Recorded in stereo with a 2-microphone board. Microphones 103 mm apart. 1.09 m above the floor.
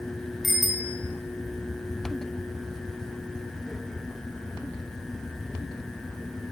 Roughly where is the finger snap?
No finger snap in this recording.